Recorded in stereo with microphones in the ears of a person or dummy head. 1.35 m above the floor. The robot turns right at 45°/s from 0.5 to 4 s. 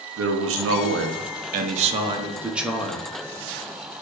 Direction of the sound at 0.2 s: 100° right.